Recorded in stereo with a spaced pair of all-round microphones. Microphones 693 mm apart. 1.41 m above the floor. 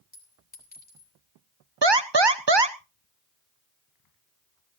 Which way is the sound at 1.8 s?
35° right (ahead or behind).